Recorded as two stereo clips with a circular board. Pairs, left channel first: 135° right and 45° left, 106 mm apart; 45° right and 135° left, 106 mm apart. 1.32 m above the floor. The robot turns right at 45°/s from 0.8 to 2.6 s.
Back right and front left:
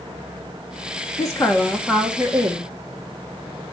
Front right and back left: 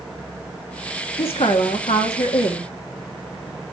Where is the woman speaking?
80° right, 1.3 m; by 2.7 s 15° right, 1.3 m.